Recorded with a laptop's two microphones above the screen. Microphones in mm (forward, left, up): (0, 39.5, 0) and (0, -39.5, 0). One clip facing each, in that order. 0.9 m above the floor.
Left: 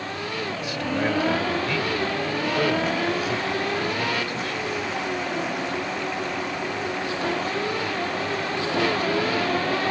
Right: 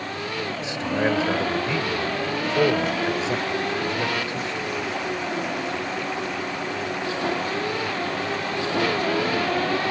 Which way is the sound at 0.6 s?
25° right (ahead or behind).